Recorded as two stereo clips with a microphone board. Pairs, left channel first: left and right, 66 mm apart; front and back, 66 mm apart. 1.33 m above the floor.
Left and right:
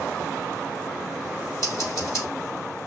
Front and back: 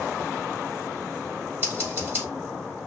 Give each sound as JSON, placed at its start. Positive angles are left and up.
{"t": 1.6, "sound": "scissors", "azimuth_deg": 125, "distance_m": 3.0}